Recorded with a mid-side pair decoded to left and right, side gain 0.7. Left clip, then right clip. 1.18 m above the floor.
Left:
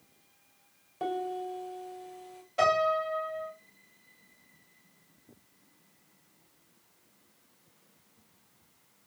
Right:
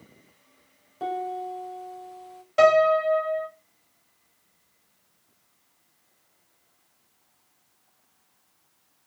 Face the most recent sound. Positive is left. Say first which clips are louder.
# right 8 dB
turn(degrees=-40)